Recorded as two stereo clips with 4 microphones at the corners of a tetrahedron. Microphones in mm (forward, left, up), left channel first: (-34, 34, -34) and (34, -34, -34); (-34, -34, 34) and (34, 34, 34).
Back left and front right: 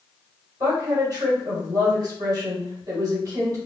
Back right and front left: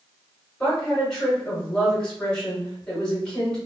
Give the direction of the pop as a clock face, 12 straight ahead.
I don't hear a pop.